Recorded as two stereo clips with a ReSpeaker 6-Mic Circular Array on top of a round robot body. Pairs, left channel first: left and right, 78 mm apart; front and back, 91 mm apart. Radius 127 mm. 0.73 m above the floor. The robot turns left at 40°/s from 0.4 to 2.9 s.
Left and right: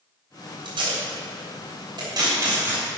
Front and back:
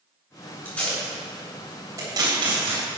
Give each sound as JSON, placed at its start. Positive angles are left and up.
{"t": 0.7, "sound": "tape being pulled", "azimuth_deg": -70, "distance_m": 3.0}